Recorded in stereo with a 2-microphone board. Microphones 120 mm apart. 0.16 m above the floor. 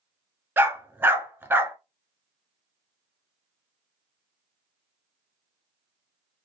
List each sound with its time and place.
0.6 s a dog barking: 15° right (ahead or behind), 1.0 m